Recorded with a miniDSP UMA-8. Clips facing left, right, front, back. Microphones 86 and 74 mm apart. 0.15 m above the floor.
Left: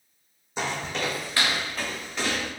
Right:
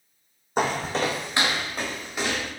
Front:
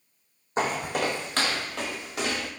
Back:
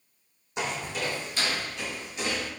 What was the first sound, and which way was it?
Footsteps, 50° right.